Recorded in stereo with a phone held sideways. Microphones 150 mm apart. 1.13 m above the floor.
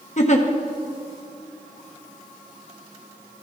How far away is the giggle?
About 0.8 m.